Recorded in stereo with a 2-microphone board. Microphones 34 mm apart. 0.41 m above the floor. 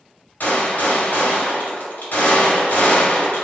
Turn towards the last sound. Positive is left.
turn(degrees=65)  # may be behind; listen again after turning